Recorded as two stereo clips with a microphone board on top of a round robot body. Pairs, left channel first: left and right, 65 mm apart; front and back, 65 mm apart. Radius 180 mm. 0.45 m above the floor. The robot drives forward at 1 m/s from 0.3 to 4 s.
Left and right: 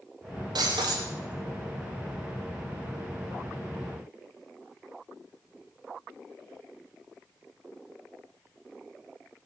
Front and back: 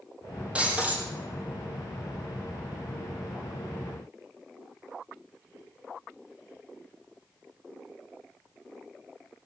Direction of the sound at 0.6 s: 110° right.